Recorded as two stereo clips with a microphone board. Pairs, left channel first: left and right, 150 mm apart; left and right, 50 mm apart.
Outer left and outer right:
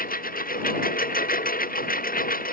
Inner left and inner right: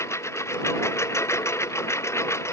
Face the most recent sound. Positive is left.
turn(degrees=70)  # may be behind; listen again after turning